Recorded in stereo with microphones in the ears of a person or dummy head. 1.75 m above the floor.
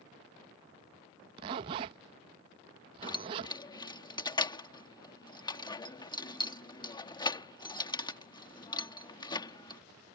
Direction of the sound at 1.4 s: 25° right (ahead or behind).